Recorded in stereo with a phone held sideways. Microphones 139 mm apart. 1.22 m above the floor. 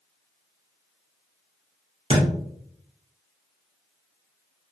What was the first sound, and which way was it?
A thud, 45° right (ahead or behind).